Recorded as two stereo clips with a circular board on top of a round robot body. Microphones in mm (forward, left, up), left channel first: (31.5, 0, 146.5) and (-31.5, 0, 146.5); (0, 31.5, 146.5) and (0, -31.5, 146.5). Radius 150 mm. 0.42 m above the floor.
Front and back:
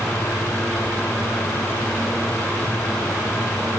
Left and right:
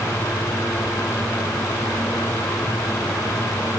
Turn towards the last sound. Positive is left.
No sound to turn to.